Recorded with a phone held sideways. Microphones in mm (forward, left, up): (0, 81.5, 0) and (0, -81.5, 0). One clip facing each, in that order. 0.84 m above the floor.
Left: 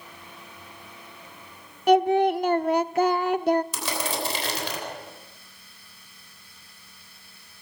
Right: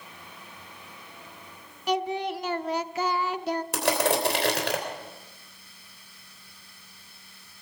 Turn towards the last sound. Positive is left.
turn(degrees=-65)  # may be behind; listen again after turning